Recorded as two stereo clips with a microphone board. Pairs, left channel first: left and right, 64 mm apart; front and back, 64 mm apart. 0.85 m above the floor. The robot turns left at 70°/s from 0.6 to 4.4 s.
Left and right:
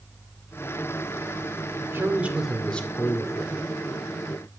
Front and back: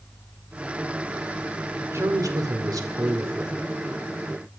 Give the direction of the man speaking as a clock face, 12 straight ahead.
4 o'clock.